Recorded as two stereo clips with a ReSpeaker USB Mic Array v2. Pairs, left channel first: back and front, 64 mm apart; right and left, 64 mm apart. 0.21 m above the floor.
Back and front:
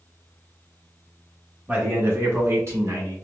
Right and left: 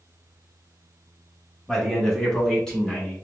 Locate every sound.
1.7 s a man speaking: 15° right, 1.1 m